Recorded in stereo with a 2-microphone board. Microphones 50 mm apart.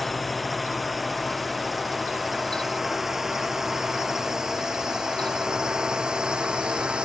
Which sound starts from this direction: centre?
A drone, at 0.0 s.